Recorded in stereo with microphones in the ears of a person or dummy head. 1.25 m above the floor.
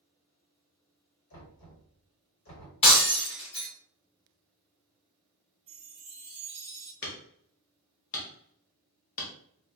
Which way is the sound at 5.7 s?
5° right (ahead or behind).